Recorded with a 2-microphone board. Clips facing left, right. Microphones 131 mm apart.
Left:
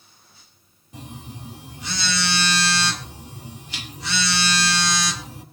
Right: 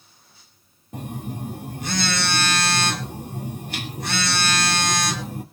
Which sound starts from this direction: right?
A phone buzzing, at 0.9 s.